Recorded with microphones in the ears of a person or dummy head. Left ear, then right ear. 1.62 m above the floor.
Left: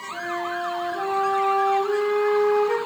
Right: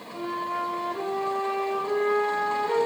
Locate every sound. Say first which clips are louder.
0.1 s a flute: left 2 dB; 25° left (ahead or behind), 5 m